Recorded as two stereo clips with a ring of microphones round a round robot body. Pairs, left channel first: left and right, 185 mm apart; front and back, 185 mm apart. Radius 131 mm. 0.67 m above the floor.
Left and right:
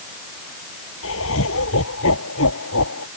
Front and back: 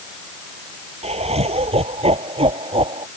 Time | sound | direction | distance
1.0 | laughter | 125° left | ?